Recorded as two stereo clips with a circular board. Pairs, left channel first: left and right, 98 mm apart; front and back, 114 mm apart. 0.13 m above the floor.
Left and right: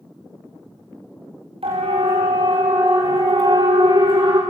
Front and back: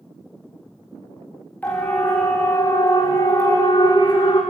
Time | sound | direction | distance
1.6 | a siren | 75° right | 9 m